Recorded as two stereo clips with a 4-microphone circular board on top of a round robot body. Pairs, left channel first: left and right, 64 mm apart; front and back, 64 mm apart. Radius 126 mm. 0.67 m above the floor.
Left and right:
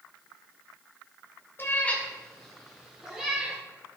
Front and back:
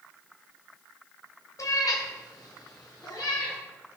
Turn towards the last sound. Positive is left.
turn(degrees=-15)